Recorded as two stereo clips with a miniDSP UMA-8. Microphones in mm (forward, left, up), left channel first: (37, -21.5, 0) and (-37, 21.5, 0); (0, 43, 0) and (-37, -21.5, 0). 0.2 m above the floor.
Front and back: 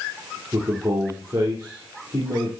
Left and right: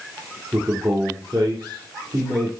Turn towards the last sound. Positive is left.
turn(degrees=-155)